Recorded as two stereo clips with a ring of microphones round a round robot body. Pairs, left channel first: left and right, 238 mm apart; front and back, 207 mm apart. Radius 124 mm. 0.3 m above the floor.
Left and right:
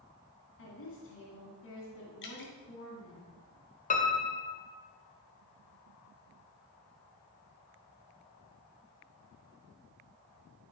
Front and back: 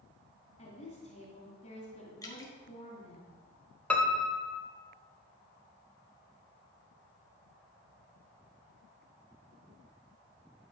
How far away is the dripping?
About 2.0 m.